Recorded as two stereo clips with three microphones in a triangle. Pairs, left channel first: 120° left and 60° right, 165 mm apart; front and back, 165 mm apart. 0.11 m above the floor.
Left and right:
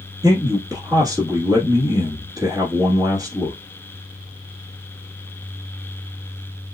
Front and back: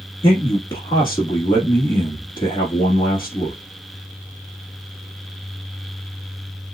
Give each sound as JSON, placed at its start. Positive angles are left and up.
{"t": 0.2, "sound": "a man speaking", "azimuth_deg": -20, "distance_m": 1.2}